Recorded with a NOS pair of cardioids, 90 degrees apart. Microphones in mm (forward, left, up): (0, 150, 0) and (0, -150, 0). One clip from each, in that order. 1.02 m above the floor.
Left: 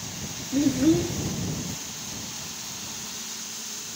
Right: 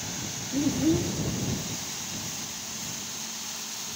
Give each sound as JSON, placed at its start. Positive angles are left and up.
{"t": 0.5, "sound": "a child speaking", "azimuth_deg": 35}